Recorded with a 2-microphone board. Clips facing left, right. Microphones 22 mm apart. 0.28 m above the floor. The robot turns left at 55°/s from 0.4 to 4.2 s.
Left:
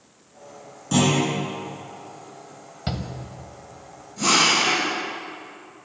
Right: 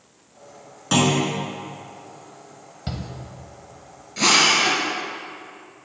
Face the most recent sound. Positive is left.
turn(degrees=-75)  # may be behind; listen again after turning